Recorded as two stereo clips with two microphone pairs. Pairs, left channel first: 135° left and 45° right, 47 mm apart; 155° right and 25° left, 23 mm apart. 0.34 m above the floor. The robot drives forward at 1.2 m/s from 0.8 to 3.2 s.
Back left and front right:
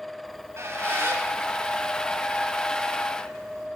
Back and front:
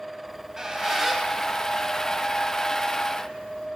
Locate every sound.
0.2 s a squeak: 40° right, 1.6 m; by 3.7 s 155° right, 2 m